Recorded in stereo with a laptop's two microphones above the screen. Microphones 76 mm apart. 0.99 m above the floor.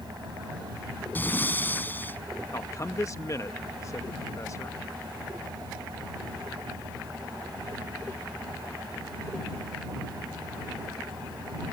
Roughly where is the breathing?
Left.